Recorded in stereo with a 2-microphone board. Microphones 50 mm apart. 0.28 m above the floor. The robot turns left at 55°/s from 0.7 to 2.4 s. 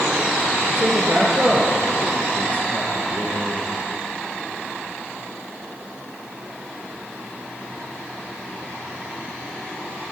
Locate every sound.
0.8 s a man speaking: 120° right, 4.5 m; by 3.7 s 150° left, 4.5 m